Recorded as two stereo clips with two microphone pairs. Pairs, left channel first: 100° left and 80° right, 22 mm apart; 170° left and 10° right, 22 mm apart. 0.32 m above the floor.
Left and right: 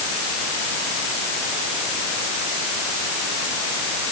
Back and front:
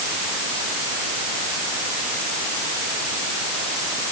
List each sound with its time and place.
Only background noise.